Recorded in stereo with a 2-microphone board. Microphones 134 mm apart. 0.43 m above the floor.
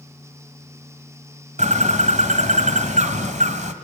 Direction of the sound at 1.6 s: 65° right (ahead or behind).